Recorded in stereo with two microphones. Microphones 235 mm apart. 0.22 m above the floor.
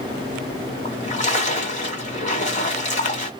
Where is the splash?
35° left (ahead or behind), 1.3 m.